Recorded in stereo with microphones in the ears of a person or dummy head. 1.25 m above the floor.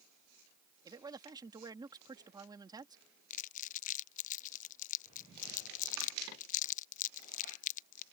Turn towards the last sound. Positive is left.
turn(degrees=40)  # may be behind; listen again after turning